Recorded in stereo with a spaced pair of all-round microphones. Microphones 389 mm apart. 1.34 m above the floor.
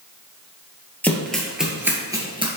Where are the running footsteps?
5° left (ahead or behind), 1.9 m; by 2.5 s 15° right (ahead or behind), 1.5 m.